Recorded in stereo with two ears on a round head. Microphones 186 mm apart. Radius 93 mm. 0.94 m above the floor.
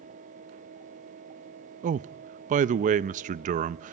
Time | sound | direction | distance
1.8 | a man speaking | 35° right (ahead or behind) | 0.5 m